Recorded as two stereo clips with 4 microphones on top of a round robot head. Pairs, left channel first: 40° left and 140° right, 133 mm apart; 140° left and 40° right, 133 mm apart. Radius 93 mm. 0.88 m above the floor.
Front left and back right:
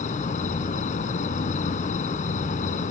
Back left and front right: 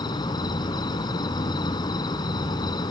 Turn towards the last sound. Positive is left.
turn(degrees=80)